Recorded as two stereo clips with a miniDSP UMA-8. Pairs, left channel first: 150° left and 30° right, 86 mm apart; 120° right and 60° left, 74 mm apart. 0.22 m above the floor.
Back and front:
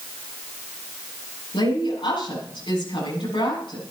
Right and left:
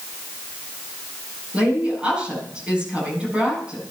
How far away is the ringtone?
No ringtone in this recording.